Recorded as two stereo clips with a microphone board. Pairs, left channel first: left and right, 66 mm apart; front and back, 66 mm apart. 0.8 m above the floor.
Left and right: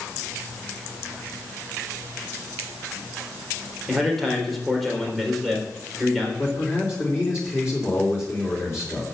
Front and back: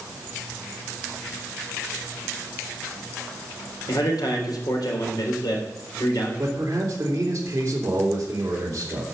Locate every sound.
3.9 s a man speaking: straight ahead, 3.5 m
6.4 s a man speaking: 135° left, 3 m